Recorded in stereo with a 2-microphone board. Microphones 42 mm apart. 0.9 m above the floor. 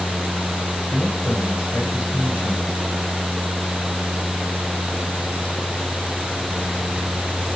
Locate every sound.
0.9 s a man speaking: 60° left (ahead or behind), 5.5 m